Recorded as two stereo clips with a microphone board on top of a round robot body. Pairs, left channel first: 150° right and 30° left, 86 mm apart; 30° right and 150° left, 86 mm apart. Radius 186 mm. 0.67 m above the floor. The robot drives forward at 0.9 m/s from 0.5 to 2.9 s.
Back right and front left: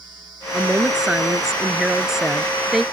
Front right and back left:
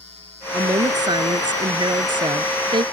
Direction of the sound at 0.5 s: 110° left.